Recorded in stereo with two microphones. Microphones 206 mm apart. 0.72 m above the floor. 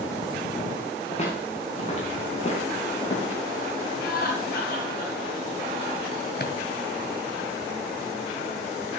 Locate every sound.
1.1 s footsteps: 30° left (ahead or behind), 6.5 m
4.0 s laughter: 50° left (ahead or behind), 8.5 m
6.4 s a drawer: 50° left (ahead or behind), 1.5 m